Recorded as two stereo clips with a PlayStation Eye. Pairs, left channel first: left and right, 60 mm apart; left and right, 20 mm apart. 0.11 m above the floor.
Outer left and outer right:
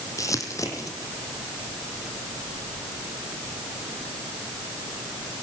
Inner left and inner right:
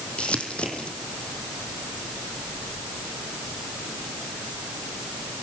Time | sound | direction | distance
0.2 | crumpling | 60° left (ahead or behind) | 3.5 m